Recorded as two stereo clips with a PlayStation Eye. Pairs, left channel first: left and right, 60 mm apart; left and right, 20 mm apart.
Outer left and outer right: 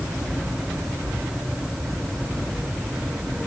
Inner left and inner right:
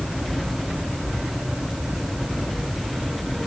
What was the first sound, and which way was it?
Only background noise.